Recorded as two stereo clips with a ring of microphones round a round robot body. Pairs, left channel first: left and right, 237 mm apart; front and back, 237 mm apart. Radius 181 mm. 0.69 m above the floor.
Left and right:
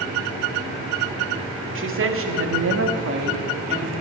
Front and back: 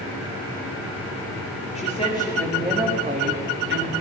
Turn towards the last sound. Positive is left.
turn(degrees=-160)